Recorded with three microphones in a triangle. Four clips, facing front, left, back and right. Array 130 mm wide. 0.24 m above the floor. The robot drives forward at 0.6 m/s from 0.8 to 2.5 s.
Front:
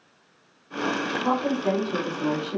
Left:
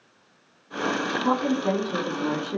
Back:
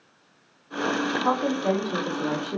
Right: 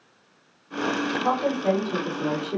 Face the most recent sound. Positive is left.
turn(degrees=-165)